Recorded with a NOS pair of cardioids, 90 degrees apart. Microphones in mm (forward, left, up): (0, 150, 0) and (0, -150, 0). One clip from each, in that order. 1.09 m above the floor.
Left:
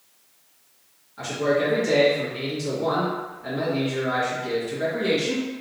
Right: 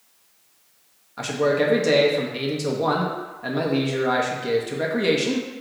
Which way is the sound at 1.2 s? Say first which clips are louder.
Right 2 dB; 55° right.